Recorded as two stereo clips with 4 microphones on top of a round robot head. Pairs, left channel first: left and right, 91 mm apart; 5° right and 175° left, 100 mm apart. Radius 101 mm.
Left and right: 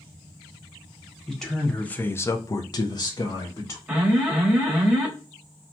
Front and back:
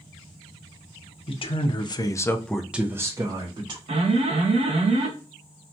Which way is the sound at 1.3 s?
5° left.